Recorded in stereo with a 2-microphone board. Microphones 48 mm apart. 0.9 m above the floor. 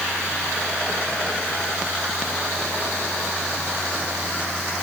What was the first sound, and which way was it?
Only background noise.